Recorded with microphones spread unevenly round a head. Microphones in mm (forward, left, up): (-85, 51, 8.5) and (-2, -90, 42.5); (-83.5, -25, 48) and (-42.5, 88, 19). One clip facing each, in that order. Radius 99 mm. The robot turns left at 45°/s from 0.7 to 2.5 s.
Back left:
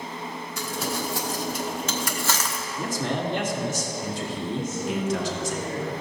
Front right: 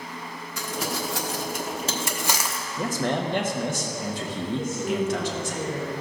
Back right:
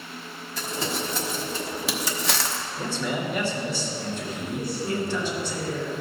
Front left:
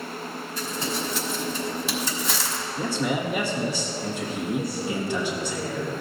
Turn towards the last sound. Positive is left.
turn(degrees=-45)